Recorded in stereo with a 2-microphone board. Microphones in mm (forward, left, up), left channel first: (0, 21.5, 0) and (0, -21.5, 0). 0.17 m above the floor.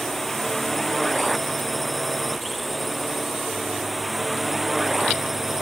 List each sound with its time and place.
0.0 s a drone: 5° left (ahead or behind); by 5.6 s 5° right (ahead or behind)